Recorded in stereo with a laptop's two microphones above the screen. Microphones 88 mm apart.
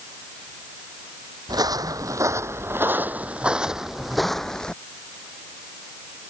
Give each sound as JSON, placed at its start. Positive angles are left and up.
{"t": 1.5, "sound": "footsteps", "side_deg": -50}